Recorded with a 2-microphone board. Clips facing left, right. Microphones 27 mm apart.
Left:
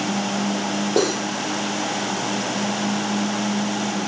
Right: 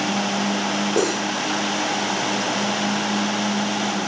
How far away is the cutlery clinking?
About 5.5 m.